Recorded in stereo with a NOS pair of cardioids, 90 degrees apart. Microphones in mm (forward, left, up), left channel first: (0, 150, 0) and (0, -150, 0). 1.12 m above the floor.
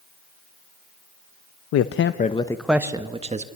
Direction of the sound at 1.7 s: 60° left.